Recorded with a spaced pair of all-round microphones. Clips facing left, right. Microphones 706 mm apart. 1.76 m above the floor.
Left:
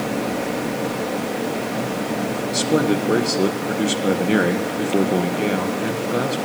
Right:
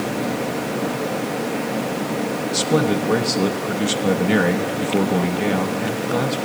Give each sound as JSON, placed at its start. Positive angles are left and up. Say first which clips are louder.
{"t": 2.5, "sound": "a man speaking", "louder": "left 1 dB", "side_deg": -30, "distance_m": 1.5}